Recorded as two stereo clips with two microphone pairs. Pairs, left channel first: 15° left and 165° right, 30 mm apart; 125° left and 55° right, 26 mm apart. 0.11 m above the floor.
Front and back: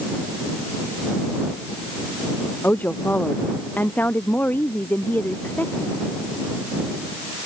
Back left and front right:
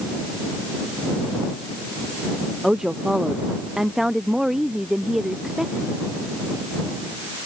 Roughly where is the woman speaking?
Ahead.